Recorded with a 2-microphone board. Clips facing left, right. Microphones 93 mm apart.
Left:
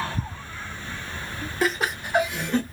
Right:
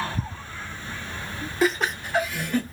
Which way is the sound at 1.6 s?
Centre (ahead or behind).